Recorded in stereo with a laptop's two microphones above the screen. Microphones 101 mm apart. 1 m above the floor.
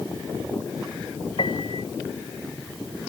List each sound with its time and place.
1.4 s a piano: 60° left (ahead or behind)